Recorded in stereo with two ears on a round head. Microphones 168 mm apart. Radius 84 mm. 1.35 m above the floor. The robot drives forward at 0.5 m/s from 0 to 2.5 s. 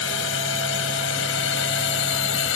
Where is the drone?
75° left (ahead or behind).